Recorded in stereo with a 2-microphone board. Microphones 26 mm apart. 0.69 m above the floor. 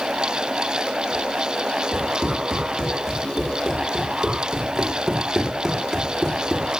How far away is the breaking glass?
No breaking glass in this recording.